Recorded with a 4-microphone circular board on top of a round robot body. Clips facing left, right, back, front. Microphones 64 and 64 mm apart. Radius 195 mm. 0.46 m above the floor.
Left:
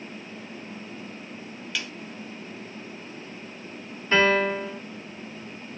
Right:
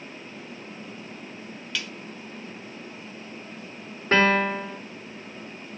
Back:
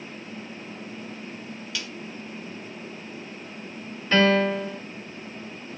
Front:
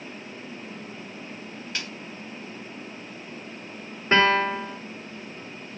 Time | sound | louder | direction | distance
1.8 | a snare drum | even, front 2 dB | 10° left | 1.2 m
4.1 | a piano | even, even | 60° right | 2 m